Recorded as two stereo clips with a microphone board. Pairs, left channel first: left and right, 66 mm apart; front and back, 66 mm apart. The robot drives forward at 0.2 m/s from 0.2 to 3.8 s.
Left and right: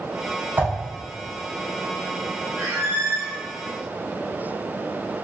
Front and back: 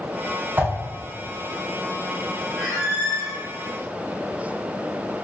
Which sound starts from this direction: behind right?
A whoosh, at 0.6 s.